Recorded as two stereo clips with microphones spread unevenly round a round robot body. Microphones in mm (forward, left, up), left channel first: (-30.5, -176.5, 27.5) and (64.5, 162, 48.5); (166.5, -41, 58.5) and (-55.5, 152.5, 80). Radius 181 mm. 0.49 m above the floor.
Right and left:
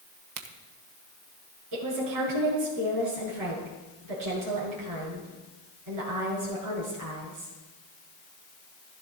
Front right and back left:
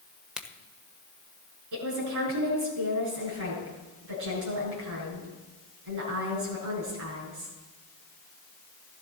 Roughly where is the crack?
Ahead left.